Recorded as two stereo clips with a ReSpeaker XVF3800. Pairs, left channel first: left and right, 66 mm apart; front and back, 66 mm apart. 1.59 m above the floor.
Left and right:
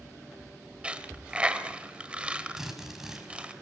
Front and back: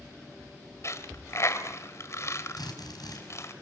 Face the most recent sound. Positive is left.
turn(degrees=-10)